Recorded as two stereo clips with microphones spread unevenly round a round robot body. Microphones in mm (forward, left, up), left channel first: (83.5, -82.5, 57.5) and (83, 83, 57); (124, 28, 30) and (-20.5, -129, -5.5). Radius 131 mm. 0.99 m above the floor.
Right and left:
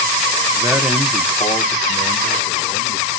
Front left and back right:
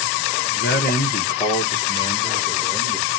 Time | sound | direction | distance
0.5 | a man speaking | 25° left | 0.9 m